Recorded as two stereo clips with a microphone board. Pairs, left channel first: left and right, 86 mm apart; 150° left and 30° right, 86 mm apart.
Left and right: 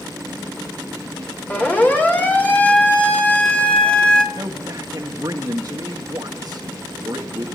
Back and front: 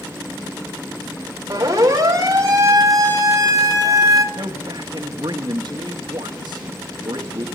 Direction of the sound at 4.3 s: 50° right.